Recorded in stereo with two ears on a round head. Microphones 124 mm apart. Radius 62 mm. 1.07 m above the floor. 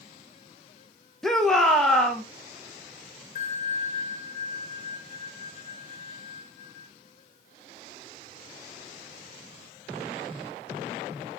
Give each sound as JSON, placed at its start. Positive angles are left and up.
{"t": 1.2, "sound": "a shout", "side_deg": 5, "distance_m": 1.1}
{"t": 3.4, "sound": "a bell", "side_deg": 55, "distance_m": 1.2}